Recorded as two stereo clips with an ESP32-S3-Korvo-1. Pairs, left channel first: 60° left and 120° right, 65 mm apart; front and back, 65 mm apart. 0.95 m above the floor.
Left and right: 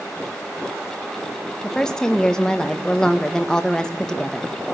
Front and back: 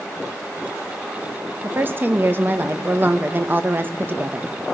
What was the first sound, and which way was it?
A woman speaking, 135° left.